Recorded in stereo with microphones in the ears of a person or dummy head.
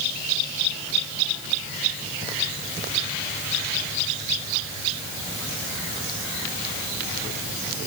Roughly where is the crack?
I don't hear a crack.